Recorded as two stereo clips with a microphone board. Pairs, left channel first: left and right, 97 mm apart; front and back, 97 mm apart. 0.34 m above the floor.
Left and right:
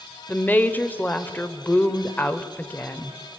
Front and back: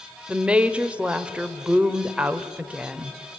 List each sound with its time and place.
0.3 s a woman speaking: 120° left, 1.0 m